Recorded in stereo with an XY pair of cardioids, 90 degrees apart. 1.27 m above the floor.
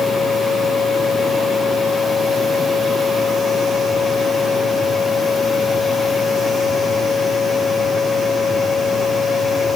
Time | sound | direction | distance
0.0 | a machine running | 40° left | 6.5 m